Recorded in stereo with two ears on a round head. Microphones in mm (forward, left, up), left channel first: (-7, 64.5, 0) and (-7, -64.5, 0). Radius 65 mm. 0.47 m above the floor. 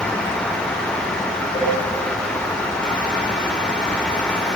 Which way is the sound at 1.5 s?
40° left (ahead or behind).